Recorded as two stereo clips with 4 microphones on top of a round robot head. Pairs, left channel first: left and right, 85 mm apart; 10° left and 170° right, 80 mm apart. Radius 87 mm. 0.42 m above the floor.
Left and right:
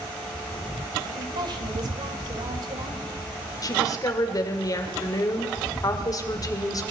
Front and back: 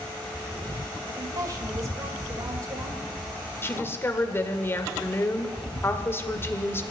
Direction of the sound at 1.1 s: 125° right.